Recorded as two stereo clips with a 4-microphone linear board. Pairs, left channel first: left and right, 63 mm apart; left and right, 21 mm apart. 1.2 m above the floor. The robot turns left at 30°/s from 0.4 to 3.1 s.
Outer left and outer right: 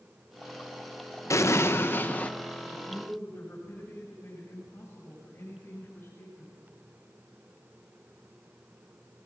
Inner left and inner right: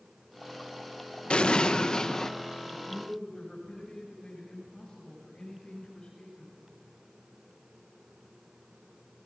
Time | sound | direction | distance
1.3 | an explosion | 55° left | 1.0 m
2.7 | a man speaking | 25° left (ahead or behind) | 7 m